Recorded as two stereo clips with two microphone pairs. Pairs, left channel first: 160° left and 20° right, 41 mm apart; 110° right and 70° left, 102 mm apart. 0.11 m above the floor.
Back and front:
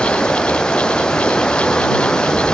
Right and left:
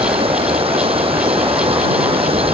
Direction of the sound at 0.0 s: 95° left.